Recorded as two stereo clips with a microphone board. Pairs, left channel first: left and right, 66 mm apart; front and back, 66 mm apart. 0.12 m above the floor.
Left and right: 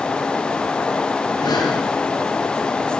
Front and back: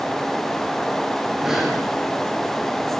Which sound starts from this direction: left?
Breathing, at 1.4 s.